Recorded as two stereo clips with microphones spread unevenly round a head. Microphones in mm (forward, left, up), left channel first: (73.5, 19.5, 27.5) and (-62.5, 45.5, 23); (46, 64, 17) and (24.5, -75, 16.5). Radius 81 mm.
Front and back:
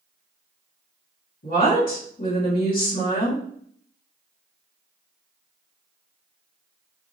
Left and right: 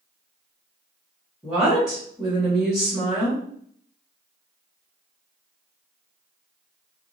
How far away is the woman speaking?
About 1.5 m.